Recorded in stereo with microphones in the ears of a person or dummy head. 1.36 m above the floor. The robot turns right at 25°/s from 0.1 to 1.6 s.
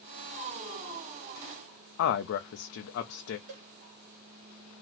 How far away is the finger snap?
I don't hear a finger snap.